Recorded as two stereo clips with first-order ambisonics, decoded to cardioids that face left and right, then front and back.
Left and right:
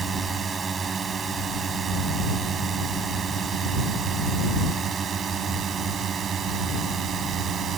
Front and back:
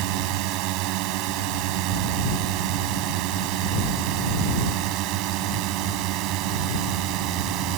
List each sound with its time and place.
0.0 s a drone: 160° right; by 7.8 s 150° right